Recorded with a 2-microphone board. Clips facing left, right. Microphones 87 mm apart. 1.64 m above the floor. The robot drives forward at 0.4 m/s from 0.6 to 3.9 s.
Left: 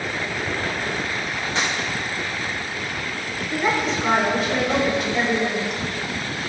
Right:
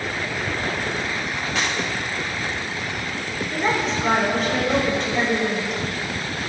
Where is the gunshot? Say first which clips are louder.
Left 1 dB; 25° left (ahead or behind), 4 m; by 1.8 s 30° left (ahead or behind), 4 m.